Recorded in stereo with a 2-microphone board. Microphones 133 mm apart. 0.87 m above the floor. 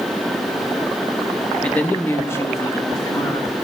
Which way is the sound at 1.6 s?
10° left (ahead or behind).